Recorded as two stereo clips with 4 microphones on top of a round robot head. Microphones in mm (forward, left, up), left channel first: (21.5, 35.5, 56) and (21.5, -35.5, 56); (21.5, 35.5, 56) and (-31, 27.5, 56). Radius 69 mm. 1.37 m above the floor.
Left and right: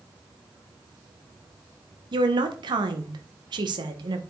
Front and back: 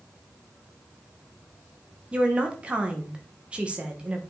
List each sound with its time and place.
2.1 s a woman speaking: 100° right, 1.4 m